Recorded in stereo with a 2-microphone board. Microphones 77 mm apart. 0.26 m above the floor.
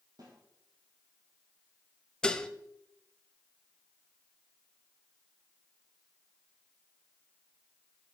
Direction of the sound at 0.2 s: 65° right (ahead or behind).